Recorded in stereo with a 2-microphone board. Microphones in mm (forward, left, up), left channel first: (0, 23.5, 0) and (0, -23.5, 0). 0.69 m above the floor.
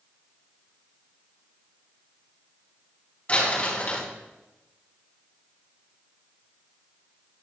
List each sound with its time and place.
3.3 s crumpling: 35° left (ahead or behind), 5 m